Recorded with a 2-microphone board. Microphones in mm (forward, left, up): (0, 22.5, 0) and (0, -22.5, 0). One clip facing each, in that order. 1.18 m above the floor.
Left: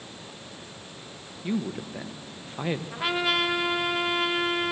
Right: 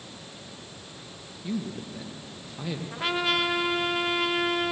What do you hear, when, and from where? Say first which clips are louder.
1.4 s a man speaking: left 3 dB; 40° left (ahead or behind), 1.1 m
2.9 s a trumpet: right 1 dB; 5° left (ahead or behind), 1.2 m